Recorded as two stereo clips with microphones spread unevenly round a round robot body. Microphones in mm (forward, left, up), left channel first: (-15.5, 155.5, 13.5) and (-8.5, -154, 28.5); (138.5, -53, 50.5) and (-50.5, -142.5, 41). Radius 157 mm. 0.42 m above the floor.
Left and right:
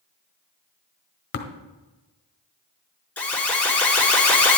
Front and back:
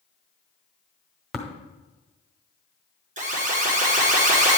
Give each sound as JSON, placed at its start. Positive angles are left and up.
{"t": 1.3, "sound": "tapping", "azimuth_deg": 120, "distance_m": 1.2}
{"t": 3.2, "sound": "an alarm", "azimuth_deg": 175, "distance_m": 1.9}